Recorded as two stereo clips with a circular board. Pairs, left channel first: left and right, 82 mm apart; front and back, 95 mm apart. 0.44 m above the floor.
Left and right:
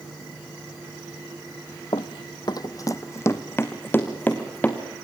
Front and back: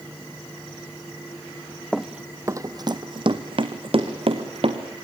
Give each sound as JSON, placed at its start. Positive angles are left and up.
{"t": 1.9, "sound": "running footsteps", "azimuth_deg": 85, "distance_m": 0.8}